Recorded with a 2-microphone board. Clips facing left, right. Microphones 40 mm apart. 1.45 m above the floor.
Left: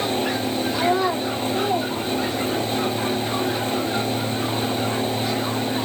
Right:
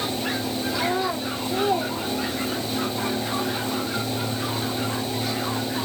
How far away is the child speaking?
About 0.8 m.